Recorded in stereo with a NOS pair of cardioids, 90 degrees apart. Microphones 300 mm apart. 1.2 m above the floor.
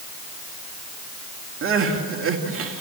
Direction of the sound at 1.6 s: 45° right.